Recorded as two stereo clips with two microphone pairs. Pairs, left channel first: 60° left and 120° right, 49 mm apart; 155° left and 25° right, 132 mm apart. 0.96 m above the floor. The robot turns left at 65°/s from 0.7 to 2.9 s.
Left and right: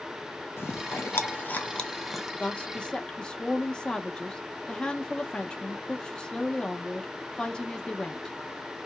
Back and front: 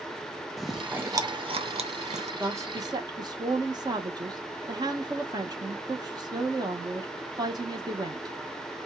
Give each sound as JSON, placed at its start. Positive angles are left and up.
{"t": 0.6, "sound": "chewing", "azimuth_deg": 70, "distance_m": 0.5}
{"t": 2.4, "sound": "a woman speaking", "azimuth_deg": 35, "distance_m": 0.7}